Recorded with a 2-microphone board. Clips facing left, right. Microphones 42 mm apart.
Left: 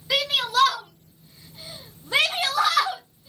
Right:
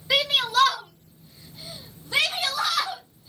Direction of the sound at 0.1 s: 5° right (ahead or behind).